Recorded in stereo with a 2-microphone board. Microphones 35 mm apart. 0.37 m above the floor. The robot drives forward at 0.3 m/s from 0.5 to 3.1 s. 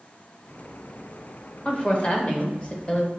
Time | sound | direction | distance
1.6 | a woman speaking | 35° left (ahead or behind) | 0.9 m